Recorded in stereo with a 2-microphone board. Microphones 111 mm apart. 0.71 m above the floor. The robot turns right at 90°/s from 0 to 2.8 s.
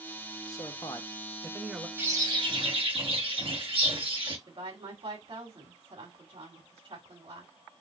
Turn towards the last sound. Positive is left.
turn(degrees=-60)  # may be behind; listen again after turning